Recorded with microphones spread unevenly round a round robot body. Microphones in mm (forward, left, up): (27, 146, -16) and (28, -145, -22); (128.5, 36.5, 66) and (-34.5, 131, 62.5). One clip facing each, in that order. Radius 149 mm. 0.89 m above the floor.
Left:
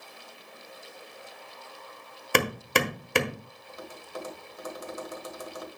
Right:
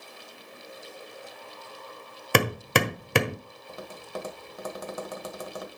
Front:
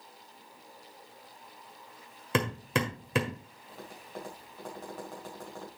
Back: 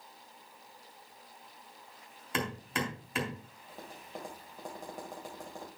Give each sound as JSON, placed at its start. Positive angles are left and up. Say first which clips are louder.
{"t": 2.3, "sound": "hammering", "louder": "right 2 dB, front 5 dB", "azimuth_deg": -80, "distance_m": 1.4}
{"t": 3.7, "sound": "tapping", "louder": "right 3 dB, front 2 dB", "azimuth_deg": -130, "distance_m": 1.7}